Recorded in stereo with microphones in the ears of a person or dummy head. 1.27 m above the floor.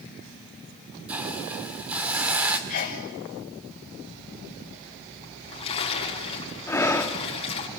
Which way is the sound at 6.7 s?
10° left (ahead or behind).